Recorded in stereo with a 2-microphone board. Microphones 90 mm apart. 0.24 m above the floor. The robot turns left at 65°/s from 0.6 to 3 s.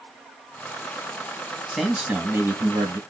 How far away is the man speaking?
About 1.7 m.